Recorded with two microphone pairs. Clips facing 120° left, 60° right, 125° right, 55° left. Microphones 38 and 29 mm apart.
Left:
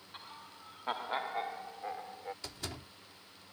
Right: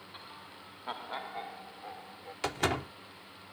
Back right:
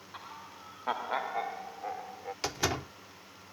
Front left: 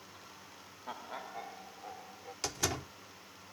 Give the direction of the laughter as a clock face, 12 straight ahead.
5 o'clock.